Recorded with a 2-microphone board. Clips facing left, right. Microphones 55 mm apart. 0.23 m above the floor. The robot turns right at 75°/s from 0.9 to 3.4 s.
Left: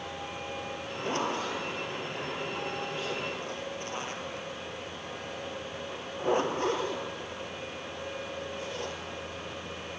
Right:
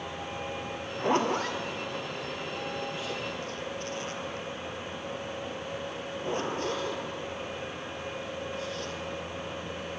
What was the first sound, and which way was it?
A zipper, 15° right (ahead or behind).